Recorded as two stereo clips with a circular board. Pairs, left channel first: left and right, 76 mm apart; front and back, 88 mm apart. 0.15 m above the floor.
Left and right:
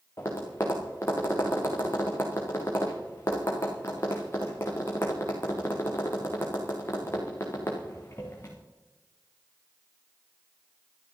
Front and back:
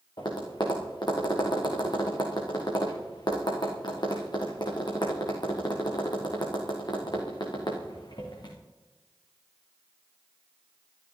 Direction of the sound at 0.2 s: 35° left.